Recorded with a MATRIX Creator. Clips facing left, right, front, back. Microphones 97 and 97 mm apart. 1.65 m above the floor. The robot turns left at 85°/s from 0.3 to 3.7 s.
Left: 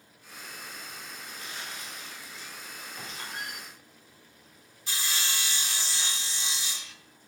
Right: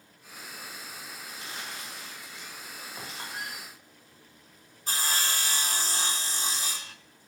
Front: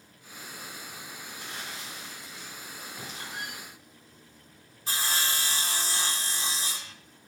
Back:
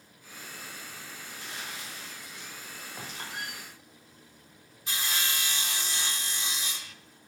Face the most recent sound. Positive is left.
turn(degrees=-50)